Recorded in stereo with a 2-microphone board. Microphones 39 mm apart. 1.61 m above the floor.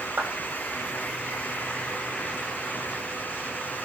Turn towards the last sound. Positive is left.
turn(degrees=-85)